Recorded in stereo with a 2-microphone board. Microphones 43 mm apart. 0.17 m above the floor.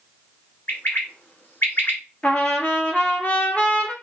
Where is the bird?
50° left (ahead or behind), 1.3 m.